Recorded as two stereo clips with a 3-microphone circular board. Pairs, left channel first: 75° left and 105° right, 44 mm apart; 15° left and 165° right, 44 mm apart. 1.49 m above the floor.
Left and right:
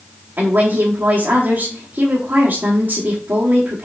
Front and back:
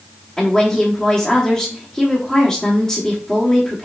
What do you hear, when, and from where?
0.4 s a woman speaking: 55° right, 1.4 m